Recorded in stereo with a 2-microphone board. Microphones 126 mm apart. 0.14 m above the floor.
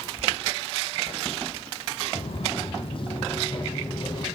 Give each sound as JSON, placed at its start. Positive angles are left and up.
{"t": 2.1, "sound": "footsteps", "side_deg": 50, "distance_m": 4.0}